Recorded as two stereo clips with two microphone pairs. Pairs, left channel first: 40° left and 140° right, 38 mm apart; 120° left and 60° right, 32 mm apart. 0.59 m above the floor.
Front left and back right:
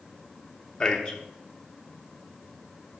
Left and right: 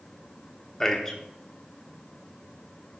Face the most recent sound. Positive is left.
turn(degrees=80)